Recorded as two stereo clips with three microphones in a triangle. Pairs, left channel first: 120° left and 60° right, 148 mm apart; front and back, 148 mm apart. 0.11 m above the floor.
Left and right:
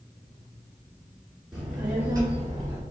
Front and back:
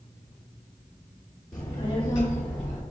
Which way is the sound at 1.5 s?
20° left.